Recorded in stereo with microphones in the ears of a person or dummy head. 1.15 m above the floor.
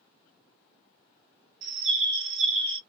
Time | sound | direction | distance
1.6 | a bird | 65° right (ahead or behind) | 0.9 m